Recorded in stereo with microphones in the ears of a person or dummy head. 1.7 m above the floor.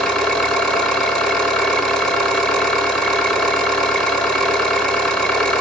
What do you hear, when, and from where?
0.0 s an engine running: 5° left (ahead or behind), 1.3 m